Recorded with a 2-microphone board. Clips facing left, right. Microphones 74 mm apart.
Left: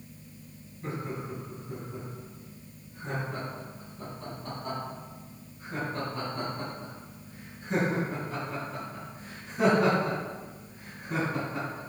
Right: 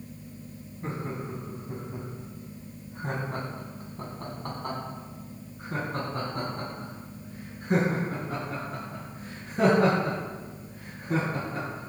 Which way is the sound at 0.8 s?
30° right (ahead or behind).